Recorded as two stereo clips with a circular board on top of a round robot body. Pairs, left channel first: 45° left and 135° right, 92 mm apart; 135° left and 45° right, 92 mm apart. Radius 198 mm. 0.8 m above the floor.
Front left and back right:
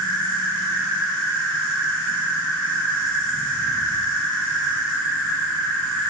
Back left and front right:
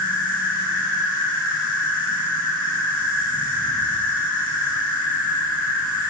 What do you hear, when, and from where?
0.0 s an insect: 165° left, 3 m